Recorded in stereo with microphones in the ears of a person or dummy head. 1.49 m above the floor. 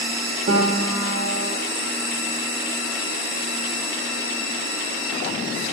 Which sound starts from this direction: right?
A piano, at 0.5 s.